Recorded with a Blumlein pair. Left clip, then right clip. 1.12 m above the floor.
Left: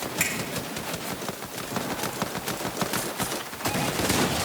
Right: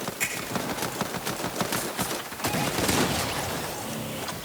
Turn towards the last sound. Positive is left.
turn(degrees=25)